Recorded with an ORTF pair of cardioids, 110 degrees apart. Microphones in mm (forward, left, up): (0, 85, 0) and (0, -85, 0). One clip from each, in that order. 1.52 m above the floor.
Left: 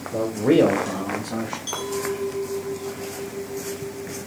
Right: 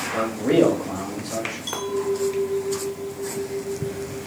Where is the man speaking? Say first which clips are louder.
Left 2 dB; 35° left, 1.1 m; by 1.6 s 5° left, 2 m.